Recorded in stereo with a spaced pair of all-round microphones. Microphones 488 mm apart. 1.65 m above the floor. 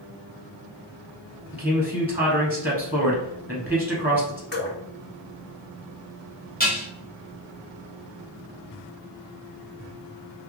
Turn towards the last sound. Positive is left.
turn(degrees=20)  # may be behind; listen again after turning